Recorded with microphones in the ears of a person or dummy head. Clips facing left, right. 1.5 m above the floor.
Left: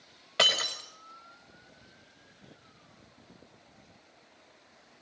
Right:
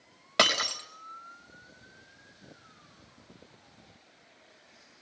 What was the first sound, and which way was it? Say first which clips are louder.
Breaking glass: right 3 dB; 70° right (ahead or behind).